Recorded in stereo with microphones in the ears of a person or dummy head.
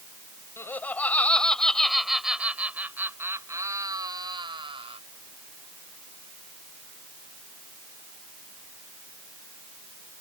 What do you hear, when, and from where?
0.6 s laughter: 15° left (ahead or behind); by 5.0 s 30° right (ahead or behind)